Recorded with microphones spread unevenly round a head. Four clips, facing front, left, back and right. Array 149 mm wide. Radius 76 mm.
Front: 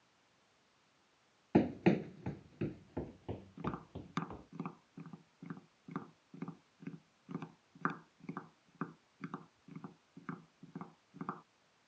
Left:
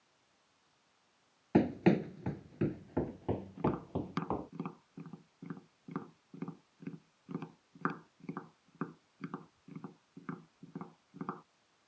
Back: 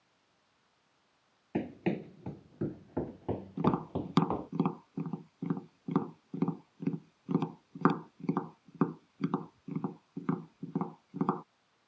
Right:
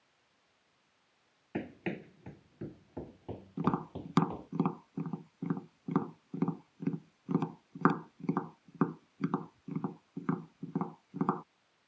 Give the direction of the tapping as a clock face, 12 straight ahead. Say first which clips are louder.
Right 5 dB, back 15 dB; 5 o'clock.